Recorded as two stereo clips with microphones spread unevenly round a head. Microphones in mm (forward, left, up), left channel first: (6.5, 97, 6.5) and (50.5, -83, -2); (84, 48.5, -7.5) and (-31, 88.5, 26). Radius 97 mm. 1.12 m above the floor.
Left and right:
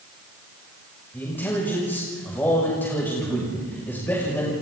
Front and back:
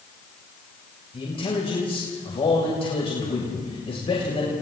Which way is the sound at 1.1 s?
25° left.